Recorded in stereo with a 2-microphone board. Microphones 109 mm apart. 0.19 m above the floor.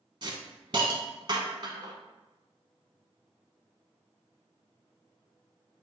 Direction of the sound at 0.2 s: 45° right (ahead or behind).